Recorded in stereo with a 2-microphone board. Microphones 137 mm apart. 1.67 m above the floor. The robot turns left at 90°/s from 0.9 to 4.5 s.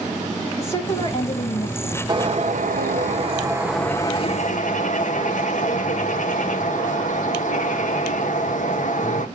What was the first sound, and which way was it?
A woman speaking, 160° left.